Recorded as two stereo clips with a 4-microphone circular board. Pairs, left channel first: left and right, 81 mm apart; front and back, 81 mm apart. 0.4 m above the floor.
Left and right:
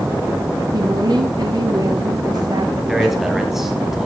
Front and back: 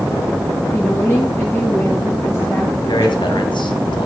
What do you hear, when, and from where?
0.7 s a woman speaking: 60° right, 5.5 m
2.9 s a man speaking: 5° right, 3 m